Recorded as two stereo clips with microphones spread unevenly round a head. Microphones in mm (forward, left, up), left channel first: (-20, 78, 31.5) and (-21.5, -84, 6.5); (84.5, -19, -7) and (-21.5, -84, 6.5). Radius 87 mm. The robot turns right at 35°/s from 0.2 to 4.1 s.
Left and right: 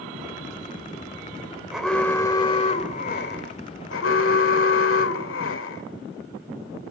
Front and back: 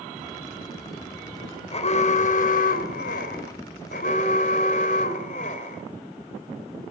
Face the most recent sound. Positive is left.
turn(degrees=80)